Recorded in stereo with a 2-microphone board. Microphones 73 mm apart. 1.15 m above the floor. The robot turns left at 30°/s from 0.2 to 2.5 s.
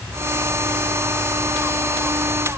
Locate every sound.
Only background noise.